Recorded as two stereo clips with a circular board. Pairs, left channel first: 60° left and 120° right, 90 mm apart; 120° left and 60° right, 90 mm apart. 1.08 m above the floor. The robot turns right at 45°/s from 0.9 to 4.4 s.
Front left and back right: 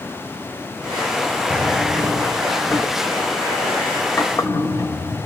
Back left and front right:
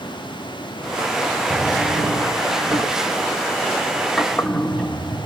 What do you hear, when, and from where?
1.5 s a drawer: 85° right, 0.9 m; by 5.3 s 45° left, 0.9 m